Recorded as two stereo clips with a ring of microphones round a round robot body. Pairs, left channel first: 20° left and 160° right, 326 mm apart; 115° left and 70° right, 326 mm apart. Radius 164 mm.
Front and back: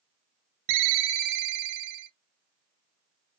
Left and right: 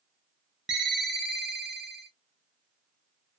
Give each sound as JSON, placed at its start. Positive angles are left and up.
{"t": 0.7, "sound": "a ringtone", "azimuth_deg": -155, "distance_m": 0.6}